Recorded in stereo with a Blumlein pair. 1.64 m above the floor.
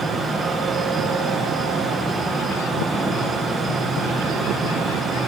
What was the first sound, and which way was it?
A fan, 10° right.